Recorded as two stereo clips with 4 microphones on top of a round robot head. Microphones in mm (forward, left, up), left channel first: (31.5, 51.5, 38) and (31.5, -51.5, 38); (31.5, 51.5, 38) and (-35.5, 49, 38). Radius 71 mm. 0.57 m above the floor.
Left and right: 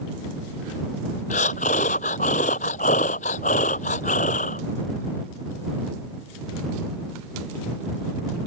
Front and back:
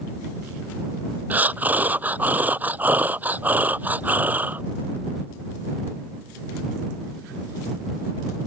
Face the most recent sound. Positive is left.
turn(degrees=115)